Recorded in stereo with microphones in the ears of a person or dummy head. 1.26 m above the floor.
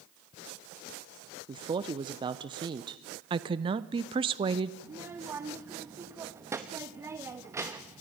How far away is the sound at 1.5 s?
About 0.7 m.